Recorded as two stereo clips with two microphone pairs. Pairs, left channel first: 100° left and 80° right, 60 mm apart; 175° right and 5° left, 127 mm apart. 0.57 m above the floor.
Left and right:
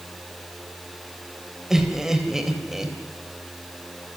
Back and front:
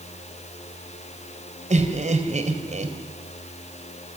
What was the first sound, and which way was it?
Laughter, straight ahead.